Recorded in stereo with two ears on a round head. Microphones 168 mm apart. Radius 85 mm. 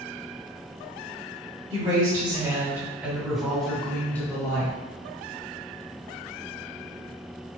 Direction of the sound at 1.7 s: 30° right (ahead or behind).